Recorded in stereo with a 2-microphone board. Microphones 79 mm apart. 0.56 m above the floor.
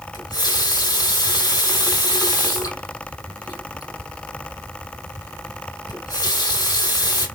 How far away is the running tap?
About 1.9 m.